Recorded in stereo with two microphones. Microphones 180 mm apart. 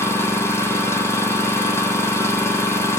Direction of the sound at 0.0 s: 15° left (ahead or behind).